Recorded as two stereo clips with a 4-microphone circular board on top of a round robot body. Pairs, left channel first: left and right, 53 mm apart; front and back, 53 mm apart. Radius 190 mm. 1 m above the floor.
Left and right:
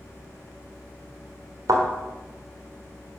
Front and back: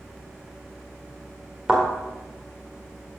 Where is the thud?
105° right, 1.2 m.